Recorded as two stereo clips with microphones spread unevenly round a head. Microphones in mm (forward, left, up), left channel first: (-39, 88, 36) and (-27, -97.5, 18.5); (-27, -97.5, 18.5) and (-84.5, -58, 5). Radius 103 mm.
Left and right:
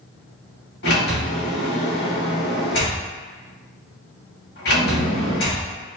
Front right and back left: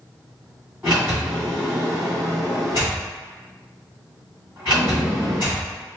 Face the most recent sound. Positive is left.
turn(degrees=65)